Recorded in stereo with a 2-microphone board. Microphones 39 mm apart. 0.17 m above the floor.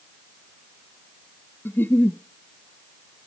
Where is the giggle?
75° left (ahead or behind), 0.7 m.